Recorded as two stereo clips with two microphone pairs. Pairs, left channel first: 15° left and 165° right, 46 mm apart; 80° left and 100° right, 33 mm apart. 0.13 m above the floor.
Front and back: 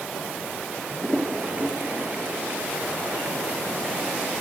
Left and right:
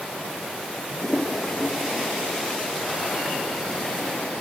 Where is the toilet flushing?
135° left.